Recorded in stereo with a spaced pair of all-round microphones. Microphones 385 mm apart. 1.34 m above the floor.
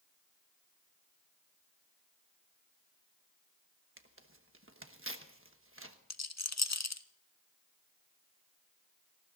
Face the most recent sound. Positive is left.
turn(degrees=45)  # may be behind; listen again after turning